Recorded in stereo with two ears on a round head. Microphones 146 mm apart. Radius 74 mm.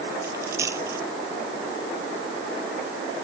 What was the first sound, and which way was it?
A dropped coin, 20° right (ahead or behind).